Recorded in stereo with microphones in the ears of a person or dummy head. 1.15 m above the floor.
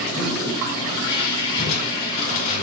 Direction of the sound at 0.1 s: 25° left (ahead or behind).